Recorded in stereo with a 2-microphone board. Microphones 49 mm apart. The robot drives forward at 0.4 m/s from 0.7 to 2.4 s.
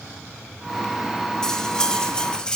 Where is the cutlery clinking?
15° left (ahead or behind), 2 m; by 2.6 s 20° left (ahead or behind), 1.8 m.